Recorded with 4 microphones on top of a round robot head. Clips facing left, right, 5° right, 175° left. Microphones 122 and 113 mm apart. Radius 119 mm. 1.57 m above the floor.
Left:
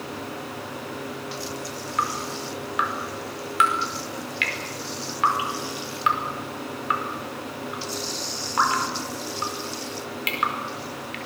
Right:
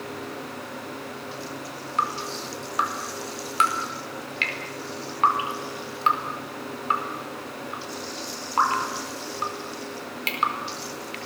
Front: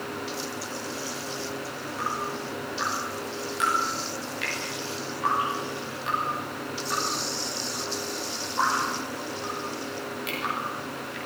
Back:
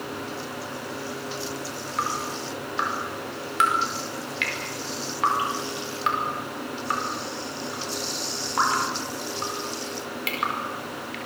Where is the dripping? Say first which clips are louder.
Even, back 2 dB; 145° right, 4.5 m.